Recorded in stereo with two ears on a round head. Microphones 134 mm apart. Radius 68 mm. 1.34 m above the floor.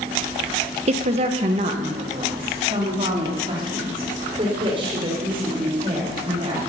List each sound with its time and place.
0.9 s a woman speaking: 45° right (ahead or behind), 0.7 m; by 6.6 s 35° right (ahead or behind), 6 m